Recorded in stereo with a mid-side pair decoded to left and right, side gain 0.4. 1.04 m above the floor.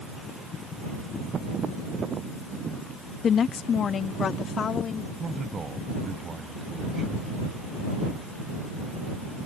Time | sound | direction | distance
3.2 | a woman speaking | 60° left | ?
5.2 | a man speaking | 45° right | ?